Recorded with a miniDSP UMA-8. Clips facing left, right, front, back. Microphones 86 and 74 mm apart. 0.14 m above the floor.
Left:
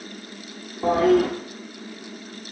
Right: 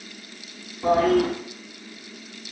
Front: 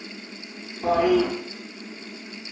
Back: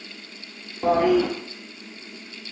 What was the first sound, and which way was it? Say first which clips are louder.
A toilet flushing: left 1 dB, back 1 dB; 140° left.